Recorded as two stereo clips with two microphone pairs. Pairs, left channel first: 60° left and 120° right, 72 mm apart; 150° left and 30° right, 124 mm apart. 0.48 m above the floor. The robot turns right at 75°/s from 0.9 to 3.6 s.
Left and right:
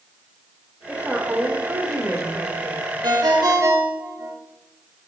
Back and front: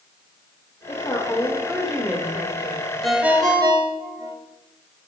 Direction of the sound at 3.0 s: 125° right.